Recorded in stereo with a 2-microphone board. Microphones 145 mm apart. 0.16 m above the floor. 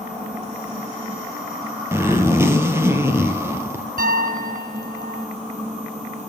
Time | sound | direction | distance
1.9 | a zipper | 20° right (ahead or behind) | 2.5 m
4.0 | a piano | 80° right | 1.1 m